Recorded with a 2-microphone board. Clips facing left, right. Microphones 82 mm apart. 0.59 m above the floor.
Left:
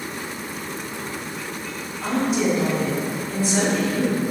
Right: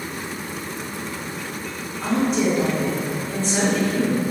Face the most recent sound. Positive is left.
turn(degrees=5)  # may be behind; listen again after turning